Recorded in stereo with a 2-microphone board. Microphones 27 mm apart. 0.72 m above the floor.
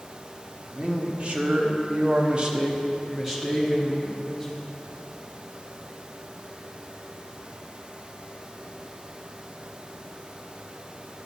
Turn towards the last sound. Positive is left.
turn(degrees=0)  # may be behind; listen again after turning